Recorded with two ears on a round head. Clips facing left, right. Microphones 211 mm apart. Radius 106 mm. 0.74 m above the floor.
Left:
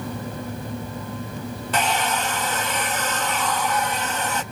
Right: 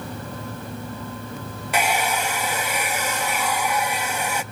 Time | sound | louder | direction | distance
1.7 | a hair dryer | right 1 dB | 10° right (ahead or behind) | 0.5 m